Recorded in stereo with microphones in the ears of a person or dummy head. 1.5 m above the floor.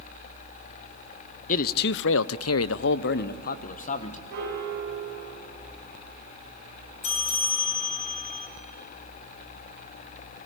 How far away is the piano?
About 5.5 m.